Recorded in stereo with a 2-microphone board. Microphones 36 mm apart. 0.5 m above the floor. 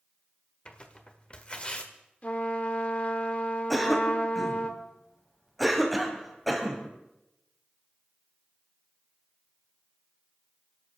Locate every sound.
0.7 s tearing paper: 30° left (ahead or behind), 1.4 m
2.2 s a trumpet: 35° left (ahead or behind), 1.4 m
3.7 s a cough: centre (ahead or behind), 3 m